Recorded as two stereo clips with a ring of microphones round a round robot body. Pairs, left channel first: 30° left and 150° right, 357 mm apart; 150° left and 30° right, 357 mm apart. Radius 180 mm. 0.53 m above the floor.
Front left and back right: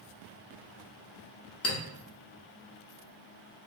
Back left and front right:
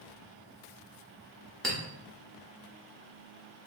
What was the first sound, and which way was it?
A clink, 60° left.